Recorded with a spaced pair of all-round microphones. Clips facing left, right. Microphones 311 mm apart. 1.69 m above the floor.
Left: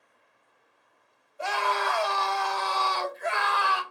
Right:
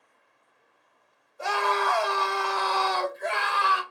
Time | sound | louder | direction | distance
1.4 | a scream | right 3 dB | 50° right (ahead or behind) | 1.2 m